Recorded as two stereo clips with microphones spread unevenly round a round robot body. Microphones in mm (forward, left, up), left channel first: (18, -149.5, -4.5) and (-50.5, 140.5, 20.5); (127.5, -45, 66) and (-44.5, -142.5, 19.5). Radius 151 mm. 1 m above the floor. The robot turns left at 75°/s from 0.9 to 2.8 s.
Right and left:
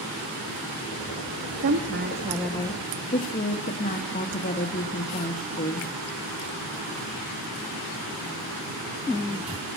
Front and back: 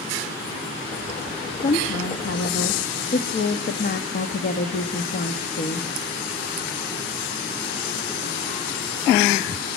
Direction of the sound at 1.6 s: 80° left.